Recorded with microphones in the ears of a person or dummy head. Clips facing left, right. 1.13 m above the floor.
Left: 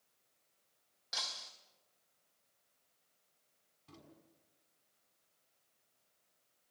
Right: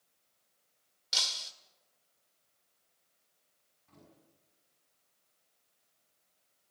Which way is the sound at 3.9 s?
50° left (ahead or behind).